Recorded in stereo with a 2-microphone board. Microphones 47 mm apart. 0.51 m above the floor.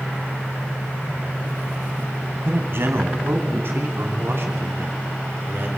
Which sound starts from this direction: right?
A man speaking, at 2.4 s.